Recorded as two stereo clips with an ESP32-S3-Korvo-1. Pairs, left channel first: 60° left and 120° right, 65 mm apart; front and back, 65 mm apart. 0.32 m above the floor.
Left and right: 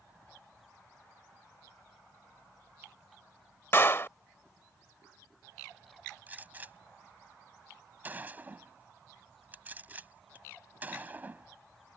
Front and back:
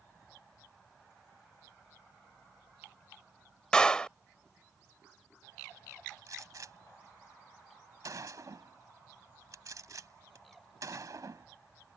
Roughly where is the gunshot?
Behind.